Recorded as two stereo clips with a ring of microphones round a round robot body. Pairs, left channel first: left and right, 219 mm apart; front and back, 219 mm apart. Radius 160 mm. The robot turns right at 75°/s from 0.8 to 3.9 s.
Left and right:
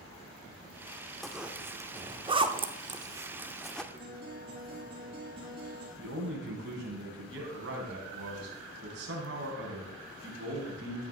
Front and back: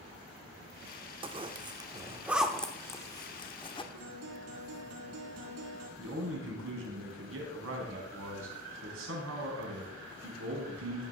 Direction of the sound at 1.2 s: 175° left.